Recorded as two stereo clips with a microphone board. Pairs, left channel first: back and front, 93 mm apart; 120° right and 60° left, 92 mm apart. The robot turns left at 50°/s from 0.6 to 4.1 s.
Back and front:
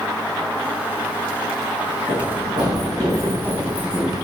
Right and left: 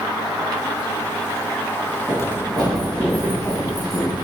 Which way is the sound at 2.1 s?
15° right.